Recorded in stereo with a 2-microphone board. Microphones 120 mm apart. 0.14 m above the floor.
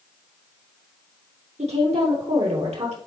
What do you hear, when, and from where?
1.6 s a woman speaking: 65° right (ahead or behind), 3 m